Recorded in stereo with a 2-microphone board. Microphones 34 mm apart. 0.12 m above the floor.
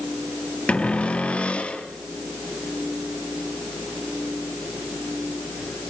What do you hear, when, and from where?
0.7 s a cupboard door: 40° left (ahead or behind), 2.5 m